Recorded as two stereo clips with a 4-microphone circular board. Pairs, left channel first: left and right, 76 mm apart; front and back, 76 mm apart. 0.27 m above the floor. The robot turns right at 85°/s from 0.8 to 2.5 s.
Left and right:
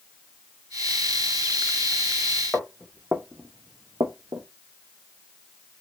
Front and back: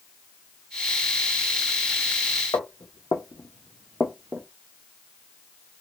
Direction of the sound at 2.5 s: Straight ahead.